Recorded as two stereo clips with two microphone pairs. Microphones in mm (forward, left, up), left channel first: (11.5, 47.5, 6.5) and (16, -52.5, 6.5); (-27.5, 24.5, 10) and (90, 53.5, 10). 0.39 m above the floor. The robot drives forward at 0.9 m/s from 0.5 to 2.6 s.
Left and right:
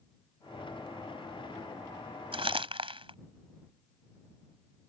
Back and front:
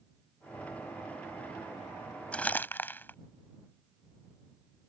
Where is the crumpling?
85° right; by 3.1 s 95° right.